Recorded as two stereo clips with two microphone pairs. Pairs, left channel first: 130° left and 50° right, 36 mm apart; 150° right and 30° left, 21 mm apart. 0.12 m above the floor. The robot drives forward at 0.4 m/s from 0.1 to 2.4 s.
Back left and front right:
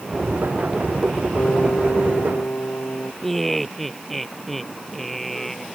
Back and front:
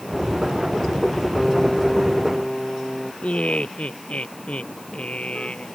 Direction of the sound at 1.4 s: 125° left.